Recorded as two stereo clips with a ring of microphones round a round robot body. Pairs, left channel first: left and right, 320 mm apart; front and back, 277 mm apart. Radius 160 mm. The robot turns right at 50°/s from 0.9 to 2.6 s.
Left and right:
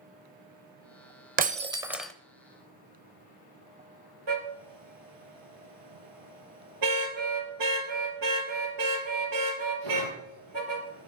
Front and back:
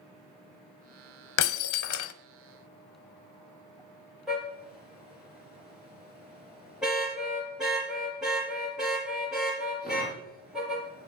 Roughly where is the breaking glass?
Ahead right.